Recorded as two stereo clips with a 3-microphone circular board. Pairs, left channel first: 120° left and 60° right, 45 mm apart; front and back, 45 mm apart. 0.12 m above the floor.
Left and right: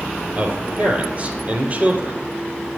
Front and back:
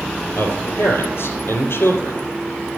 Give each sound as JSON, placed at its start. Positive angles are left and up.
{"t": 0.3, "sound": "a man speaking", "azimuth_deg": -10, "distance_m": 3.5}